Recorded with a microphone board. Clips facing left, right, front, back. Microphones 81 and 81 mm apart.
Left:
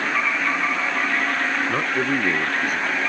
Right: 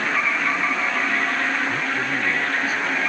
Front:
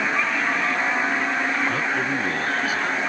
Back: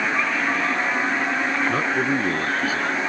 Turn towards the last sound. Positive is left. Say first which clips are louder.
# left 2 dB, back 2 dB
turn(degrees=120)